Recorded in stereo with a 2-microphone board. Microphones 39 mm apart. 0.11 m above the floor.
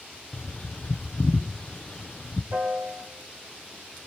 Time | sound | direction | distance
0.3 | a bird | 35° left (ahead or behind) | 1.0 m
2.5 | a piano | 70° right (ahead or behind) | 2.5 m